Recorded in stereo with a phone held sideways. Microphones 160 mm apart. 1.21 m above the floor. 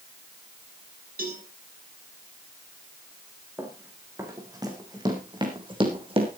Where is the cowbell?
85° right, 6 m.